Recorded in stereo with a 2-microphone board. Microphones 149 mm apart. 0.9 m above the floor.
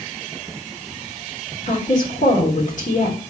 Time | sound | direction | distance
1.7 | a woman speaking | 60° left (ahead or behind) | 3 m